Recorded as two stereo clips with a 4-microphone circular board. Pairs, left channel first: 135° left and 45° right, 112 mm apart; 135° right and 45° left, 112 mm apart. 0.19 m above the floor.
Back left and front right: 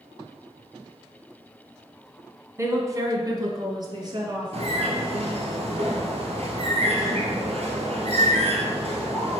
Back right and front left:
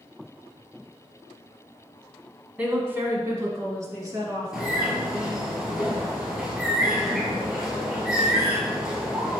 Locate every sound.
2.6 s a woman speaking: 15° right, 1.3 m; by 5.0 s 5° right, 2.5 m
4.5 s a bird: 40° right, 1.6 m